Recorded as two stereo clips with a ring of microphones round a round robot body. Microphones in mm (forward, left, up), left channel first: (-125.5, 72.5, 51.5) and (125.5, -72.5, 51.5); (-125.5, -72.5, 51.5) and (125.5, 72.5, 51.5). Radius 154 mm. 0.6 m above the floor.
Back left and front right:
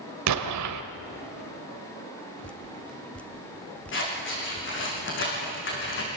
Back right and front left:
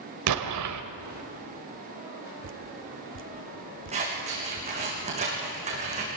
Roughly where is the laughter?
No laughter in this recording.